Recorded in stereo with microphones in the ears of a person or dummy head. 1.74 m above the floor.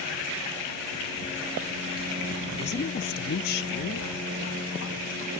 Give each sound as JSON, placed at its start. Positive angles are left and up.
{"t": 2.6, "sound": "a woman speaking", "side_deg": 30}